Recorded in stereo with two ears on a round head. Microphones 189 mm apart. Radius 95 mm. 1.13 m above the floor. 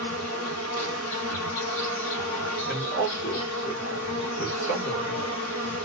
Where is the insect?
65° left (ahead or behind), 1.1 m.